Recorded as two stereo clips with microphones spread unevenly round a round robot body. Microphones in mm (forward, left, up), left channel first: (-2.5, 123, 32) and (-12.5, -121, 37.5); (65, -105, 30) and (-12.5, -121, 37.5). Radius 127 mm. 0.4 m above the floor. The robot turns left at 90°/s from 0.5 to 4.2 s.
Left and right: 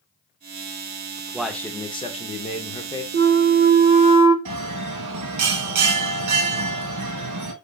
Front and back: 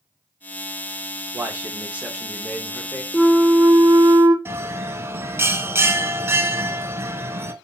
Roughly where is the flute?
Ahead right.